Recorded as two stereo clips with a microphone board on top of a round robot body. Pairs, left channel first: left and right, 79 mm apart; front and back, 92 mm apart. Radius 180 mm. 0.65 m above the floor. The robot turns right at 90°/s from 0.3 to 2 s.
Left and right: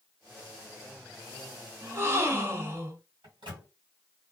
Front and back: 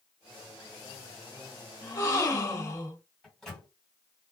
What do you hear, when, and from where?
1.8 s a gasp: 65° right, 1.5 m; by 3.0 s 50° right, 1.5 m
3.2 s a microwave: 85° right, 1.6 m